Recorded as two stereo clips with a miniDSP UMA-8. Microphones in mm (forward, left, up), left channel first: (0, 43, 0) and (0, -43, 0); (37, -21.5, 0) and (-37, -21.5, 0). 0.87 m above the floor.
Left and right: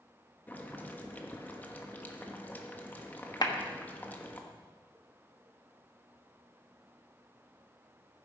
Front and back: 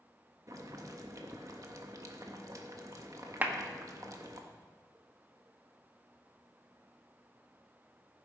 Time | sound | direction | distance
0.5 | boiling | 155° left | 1.3 m
3.4 | a clap | 115° left | 1.2 m